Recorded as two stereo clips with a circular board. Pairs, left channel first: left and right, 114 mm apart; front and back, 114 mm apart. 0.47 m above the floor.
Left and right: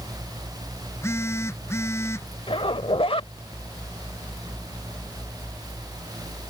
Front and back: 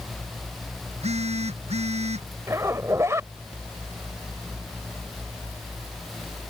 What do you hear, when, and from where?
0.9 s a phone buzzing: 160° left
2.5 s a zipper: 115° left